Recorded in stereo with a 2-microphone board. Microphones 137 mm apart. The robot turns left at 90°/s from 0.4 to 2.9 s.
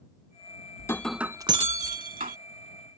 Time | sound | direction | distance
0.8 | breaking glass | 30° left | ?